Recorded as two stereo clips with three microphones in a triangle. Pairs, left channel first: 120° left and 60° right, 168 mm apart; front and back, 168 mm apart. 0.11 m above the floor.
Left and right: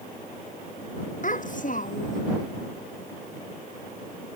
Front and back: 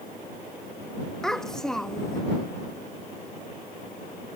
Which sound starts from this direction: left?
A child speaking, at 1.2 s.